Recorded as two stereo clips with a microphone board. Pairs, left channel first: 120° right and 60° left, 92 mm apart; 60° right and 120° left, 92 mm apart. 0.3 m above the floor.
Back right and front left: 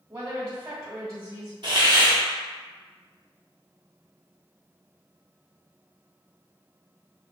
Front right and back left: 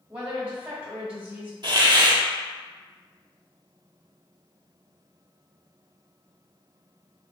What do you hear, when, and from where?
0.1 s a woman speaking: 60° left, 1.1 m
1.6 s a hiss: 90° left, 0.6 m